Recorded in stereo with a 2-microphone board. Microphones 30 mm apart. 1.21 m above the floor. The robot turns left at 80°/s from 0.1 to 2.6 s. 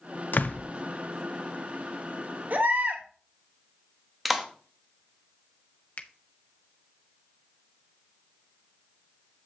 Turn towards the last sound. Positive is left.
turn(degrees=45)  # may be behind; listen again after turning